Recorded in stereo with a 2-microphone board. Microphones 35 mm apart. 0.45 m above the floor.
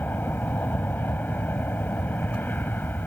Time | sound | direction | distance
0.0 | an aircraft | 60° left (ahead or behind) | ?